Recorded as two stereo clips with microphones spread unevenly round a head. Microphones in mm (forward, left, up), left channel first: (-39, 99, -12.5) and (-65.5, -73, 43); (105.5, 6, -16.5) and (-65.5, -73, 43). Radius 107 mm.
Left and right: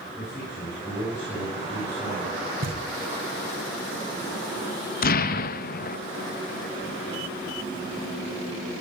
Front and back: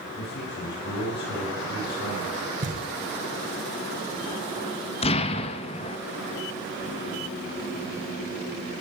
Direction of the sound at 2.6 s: 130° right.